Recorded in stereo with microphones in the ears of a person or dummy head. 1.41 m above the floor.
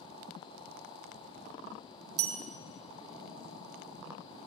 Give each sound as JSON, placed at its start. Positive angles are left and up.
{"t": 2.2, "sound": "a bell", "side_deg": -70, "distance_m": 0.9}